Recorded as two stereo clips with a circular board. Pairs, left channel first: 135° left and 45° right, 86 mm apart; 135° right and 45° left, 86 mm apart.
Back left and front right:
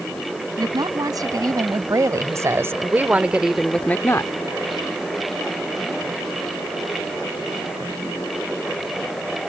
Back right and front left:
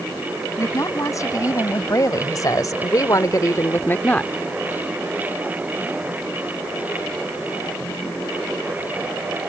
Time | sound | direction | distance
0.6 | a woman speaking | 85° right | ?